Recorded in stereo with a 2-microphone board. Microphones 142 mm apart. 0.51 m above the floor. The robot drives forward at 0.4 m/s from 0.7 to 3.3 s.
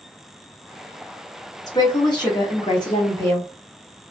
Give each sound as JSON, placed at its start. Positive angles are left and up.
{"t": 1.7, "sound": "a woman speaking", "side_deg": 25, "distance_m": 0.8}